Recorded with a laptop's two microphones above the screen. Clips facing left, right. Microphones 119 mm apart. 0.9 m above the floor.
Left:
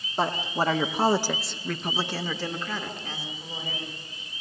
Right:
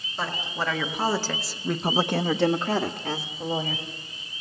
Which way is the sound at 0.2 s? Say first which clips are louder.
Left 4 dB; 45° left (ahead or behind).